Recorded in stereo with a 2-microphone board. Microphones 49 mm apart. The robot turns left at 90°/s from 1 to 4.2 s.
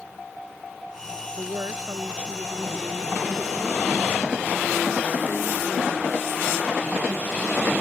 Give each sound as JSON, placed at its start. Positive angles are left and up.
{"t": 1.4, "sound": "a woman speaking", "azimuth_deg": -75}